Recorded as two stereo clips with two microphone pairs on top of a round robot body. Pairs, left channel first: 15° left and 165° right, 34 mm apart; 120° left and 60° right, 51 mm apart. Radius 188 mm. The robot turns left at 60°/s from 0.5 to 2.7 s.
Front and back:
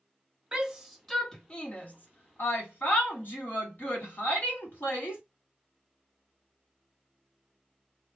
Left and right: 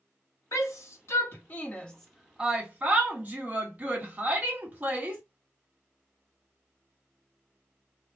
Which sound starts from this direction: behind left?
A shout, at 0.5 s.